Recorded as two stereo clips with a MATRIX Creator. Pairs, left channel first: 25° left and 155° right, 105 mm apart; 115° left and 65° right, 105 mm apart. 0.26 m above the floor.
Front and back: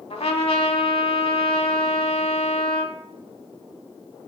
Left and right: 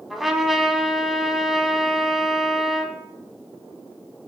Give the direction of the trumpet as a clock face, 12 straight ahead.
11 o'clock.